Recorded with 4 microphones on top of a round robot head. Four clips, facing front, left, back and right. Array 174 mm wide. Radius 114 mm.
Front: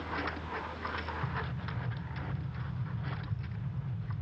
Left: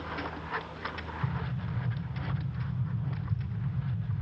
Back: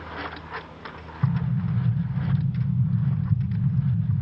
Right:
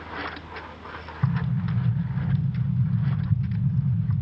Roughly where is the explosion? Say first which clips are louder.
Right 11 dB, back 11 dB; behind right.